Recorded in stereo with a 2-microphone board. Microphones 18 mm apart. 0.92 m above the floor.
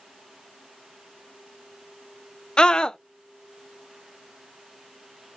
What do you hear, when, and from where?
2.6 s a scream: 60° left (ahead or behind), 0.6 m